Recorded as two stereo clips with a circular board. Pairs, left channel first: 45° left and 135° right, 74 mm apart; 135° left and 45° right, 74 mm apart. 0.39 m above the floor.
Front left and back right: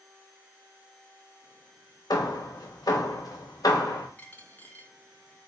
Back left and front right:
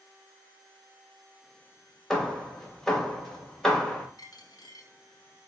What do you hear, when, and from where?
2.1 s hammering: 55° left, 0.7 m
4.2 s a dropped coin: 110° left, 0.6 m